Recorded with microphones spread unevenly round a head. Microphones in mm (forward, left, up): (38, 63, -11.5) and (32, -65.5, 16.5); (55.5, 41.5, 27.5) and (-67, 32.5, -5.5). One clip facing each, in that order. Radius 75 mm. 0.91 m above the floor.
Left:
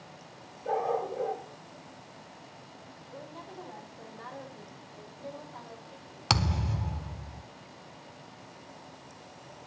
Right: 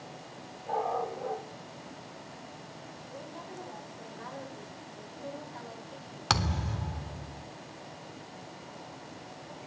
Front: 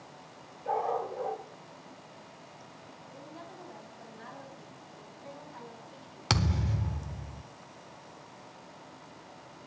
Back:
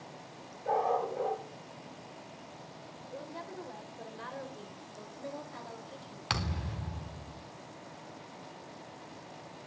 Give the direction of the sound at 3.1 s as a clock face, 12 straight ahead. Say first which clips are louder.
Even, back 5 dB; 6 o'clock.